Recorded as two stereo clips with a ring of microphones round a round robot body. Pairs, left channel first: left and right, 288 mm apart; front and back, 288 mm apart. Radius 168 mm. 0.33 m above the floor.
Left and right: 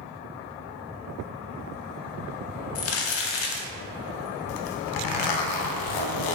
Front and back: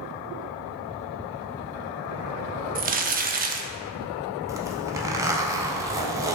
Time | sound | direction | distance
2.8 | crumpling | 120° left | 0.5 m
4.5 | a zipper | 100° left | 0.5 m